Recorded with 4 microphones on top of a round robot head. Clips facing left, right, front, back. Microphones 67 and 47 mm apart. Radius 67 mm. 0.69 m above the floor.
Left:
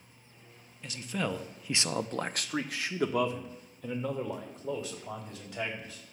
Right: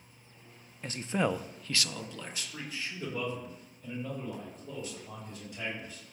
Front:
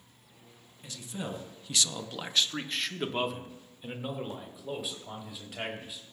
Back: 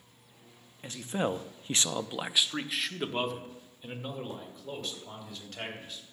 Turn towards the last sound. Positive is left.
turn(degrees=80)